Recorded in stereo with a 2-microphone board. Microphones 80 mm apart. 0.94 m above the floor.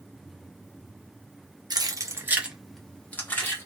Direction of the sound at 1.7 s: 60° right (ahead or behind).